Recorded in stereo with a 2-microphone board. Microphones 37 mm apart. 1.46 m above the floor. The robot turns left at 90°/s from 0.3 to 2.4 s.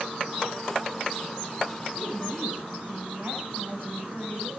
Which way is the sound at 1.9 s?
25° right.